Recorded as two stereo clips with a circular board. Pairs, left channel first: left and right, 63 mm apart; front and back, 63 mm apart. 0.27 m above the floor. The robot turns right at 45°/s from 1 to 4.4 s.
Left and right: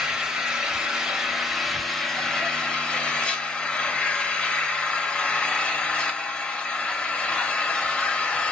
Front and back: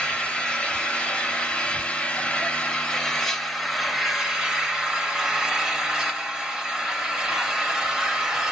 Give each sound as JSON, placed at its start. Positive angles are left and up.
{"t": 0.0, "sound": "an engine running", "azimuth_deg": -30, "distance_m": 0.7}